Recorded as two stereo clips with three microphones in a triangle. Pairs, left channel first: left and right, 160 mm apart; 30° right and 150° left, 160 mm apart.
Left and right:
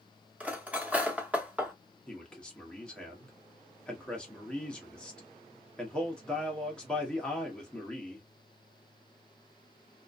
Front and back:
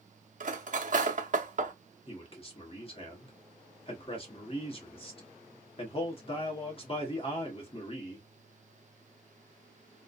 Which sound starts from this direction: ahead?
A man speaking, at 2.1 s.